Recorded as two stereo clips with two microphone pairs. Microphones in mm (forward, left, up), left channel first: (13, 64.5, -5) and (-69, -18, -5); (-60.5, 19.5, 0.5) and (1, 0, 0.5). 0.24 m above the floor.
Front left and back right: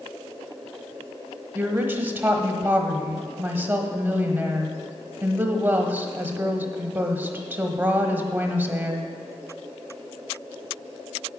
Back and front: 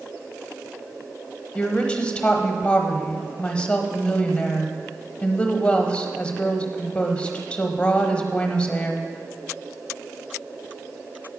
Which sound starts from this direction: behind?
A woman speaking, at 1.6 s.